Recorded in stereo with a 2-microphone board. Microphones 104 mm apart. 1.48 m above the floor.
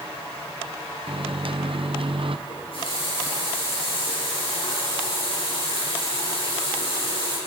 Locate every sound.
1.1 s a microwave: 55° right (ahead or behind), 0.6 m
2.5 s a running tap: 60° left (ahead or behind), 7.5 m